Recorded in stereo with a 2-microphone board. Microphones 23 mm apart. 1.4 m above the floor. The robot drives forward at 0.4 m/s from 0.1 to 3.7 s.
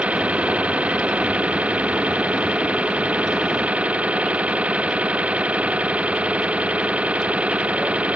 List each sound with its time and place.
0.0 s an engine running: 75° right (ahead or behind); by 8.2 s 70° right (ahead or behind)